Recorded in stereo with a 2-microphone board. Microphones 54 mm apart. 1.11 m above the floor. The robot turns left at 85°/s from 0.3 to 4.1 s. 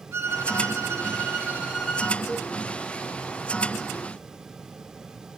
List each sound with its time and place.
0.1 s a violin: 50° right, 2.5 m; by 2.2 s 150° left, 2.5 m
2.3 s a cowbell: 35° left (ahead or behind), 3.5 m; by 2.5 s 50° left (ahead or behind), 3.5 m